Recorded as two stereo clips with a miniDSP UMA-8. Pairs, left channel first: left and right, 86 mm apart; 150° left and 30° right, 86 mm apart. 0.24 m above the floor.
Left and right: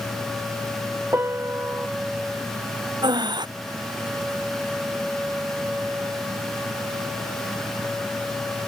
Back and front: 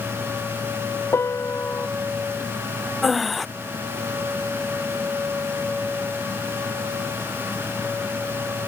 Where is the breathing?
120° right.